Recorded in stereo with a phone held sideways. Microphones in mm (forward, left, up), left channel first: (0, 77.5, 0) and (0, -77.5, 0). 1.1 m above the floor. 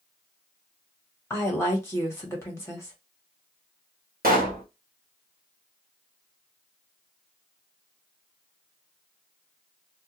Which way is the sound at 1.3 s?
15° left (ahead or behind).